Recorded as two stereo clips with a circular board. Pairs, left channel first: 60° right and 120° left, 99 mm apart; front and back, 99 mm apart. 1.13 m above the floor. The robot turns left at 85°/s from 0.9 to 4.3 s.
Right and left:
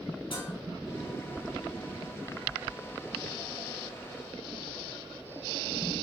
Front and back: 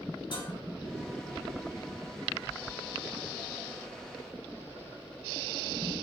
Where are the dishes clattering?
35° right, 4 m.